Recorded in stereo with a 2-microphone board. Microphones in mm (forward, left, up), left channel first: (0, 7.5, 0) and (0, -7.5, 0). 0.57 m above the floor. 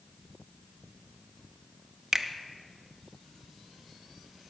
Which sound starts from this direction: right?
A finger snap, at 2.1 s.